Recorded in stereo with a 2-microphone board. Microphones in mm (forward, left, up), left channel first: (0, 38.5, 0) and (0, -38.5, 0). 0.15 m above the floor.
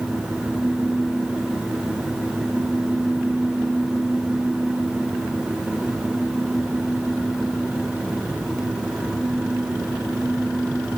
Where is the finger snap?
I don't hear a finger snap.